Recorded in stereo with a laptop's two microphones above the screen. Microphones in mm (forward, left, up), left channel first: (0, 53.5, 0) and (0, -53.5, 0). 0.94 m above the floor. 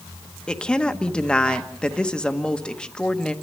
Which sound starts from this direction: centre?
A woman speaking, at 0.5 s.